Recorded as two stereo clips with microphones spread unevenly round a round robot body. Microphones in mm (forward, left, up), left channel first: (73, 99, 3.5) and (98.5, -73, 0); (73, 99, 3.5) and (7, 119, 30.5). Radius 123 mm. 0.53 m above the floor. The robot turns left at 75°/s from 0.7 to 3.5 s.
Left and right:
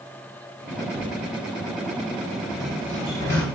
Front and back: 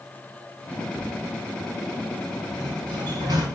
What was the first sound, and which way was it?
A cupboard door, 80° right.